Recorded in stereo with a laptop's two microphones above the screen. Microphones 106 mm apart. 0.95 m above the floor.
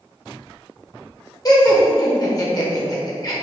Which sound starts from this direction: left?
Laughter, at 1.4 s.